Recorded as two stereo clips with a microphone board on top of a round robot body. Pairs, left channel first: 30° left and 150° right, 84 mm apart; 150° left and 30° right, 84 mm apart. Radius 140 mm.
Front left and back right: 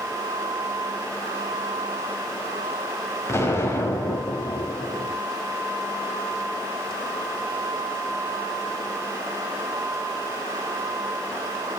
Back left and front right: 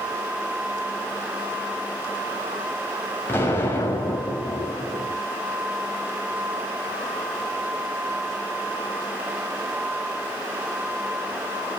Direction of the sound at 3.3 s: 85° left.